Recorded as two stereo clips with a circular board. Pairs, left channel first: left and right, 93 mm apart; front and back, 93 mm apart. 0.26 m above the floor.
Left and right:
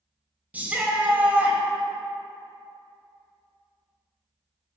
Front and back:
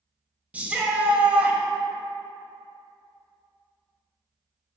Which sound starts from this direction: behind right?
A shout, at 0.5 s.